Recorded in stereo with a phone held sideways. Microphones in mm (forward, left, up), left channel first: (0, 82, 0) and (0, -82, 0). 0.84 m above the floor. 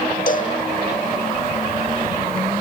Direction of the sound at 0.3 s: 55° left (ahead or behind).